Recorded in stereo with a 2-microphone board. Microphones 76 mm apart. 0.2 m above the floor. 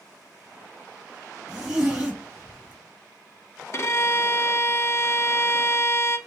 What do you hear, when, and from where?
1.5 s a zipper: 10° right (ahead or behind), 2.0 m
3.7 s a violin: 40° left (ahead or behind), 0.5 m